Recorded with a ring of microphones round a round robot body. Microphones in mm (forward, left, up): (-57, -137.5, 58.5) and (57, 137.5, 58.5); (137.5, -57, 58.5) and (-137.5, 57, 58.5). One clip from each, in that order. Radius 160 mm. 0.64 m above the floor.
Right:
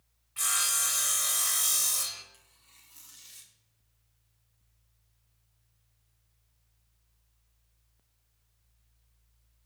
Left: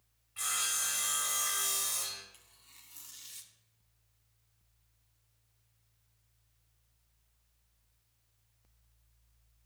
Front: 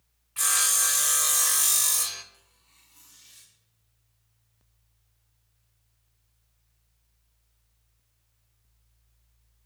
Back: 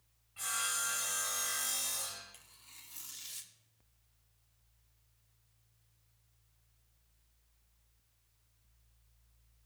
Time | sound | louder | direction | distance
0.4 | sawing | right 5 dB, front 11 dB | 40° right | 1.3 m
2.3 | tearing paper | left 1 dB, back 4 dB | 145° left | 1.7 m